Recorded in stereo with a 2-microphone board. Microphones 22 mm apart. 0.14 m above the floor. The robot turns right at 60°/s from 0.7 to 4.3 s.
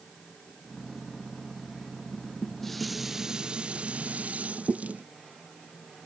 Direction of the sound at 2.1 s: 140° left.